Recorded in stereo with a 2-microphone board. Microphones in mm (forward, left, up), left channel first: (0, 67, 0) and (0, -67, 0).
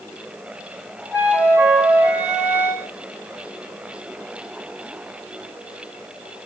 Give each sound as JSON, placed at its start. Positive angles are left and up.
{"t": 1.1, "sound": "a flute", "side_deg": -15, "distance_m": 3.0}